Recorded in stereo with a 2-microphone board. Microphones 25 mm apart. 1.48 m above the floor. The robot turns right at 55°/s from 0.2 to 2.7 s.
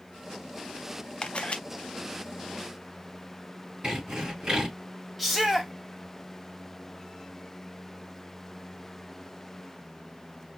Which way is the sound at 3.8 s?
40° right (ahead or behind).